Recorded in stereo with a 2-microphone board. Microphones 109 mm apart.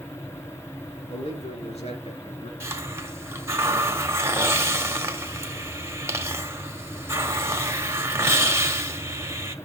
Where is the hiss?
25° right (ahead or behind), 1.4 m.